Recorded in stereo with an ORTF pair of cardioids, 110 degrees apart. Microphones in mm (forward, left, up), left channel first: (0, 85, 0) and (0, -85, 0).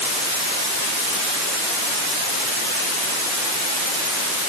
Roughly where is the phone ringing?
No phone ringing in this recording.